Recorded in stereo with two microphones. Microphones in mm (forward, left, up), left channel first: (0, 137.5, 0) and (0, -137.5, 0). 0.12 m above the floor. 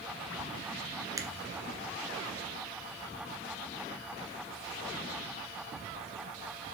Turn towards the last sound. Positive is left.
turn(degrees=-10)  # may be behind; listen again after turning